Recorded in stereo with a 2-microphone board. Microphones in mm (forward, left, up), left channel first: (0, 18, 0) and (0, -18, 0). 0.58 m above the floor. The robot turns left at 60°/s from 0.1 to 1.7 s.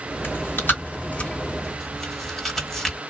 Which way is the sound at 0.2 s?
85° left.